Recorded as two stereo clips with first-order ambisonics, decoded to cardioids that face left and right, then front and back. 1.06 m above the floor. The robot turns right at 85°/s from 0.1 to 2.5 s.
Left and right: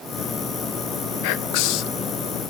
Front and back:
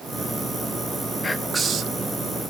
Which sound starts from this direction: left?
Whispering, at 1.2 s.